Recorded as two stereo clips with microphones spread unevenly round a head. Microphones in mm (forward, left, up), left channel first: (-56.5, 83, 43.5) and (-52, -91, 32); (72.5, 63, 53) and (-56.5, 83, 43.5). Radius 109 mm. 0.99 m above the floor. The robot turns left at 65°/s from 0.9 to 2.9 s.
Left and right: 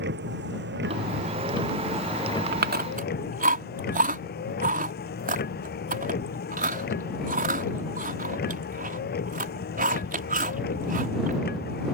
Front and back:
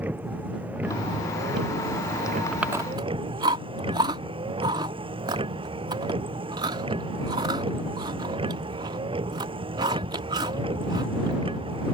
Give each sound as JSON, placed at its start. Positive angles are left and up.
{"t": 0.0, "sound": "a vehicle", "azimuth_deg": -110}
{"t": 2.5, "sound": "chewing", "azimuth_deg": -100}